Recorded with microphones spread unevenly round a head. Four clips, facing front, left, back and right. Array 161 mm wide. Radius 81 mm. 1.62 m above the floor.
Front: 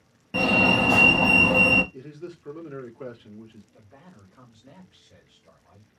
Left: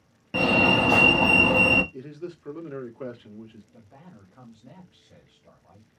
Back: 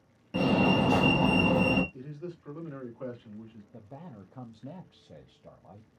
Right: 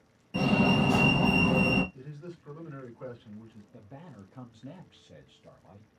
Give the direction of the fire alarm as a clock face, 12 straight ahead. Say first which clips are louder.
Left 3 dB, front 2 dB; 10 o'clock.